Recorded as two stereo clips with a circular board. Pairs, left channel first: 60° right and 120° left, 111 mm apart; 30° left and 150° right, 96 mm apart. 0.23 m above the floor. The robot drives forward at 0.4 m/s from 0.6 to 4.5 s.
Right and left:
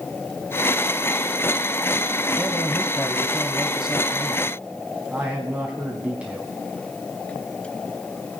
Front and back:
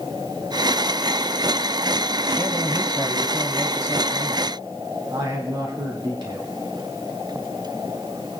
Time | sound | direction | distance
2.4 | a man speaking | 125° right | 1.0 m